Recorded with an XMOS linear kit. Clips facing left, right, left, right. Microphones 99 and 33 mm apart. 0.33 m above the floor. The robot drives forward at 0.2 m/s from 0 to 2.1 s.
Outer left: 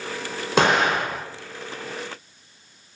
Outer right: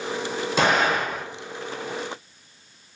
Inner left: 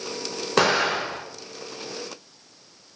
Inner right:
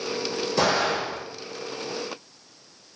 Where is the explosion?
75° left (ahead or behind), 0.7 m; by 1.2 s 85° left, 0.6 m.